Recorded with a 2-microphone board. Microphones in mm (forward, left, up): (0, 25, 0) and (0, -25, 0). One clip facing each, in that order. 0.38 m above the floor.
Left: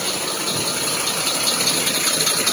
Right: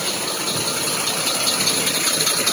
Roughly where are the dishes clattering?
I don't hear dishes clattering.